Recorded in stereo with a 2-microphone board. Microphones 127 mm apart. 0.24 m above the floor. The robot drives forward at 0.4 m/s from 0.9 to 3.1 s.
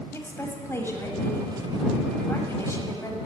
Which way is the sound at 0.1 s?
20° left (ahead or behind).